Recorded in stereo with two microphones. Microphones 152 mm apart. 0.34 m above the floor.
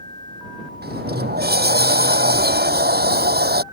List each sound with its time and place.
0.8 s a sliding door: 80° right